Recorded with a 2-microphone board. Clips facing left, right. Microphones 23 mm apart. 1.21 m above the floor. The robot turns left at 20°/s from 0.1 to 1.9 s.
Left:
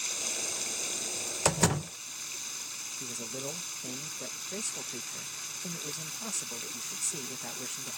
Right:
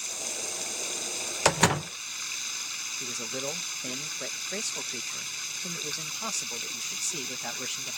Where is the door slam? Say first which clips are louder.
Right 5 dB; 25° right (ahead or behind); by 1.9 s 35° right (ahead or behind).